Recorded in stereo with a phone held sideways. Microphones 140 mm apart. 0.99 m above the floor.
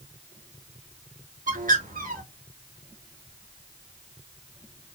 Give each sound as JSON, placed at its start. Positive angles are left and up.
{"t": 1.5, "sound": "a bird", "side_deg": -75, "distance_m": 1.1}